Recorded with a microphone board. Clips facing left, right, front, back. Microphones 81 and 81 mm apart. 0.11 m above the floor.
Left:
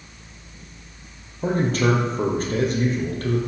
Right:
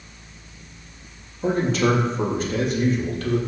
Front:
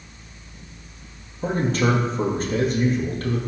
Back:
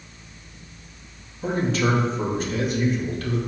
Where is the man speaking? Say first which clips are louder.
Right 1 dB, front 1 dB; 45° left, 2.5 m.